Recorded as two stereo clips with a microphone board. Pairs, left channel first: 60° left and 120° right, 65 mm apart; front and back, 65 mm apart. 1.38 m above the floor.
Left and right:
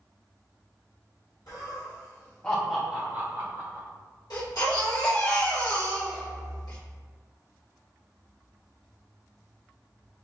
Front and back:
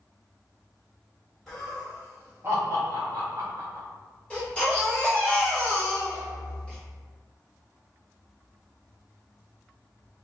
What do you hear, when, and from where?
1.5 s laughter: 85° left, 1.7 m; by 3.9 s 150° right, 1.7 m
4.3 s a baby crying: 75° left, 1.2 m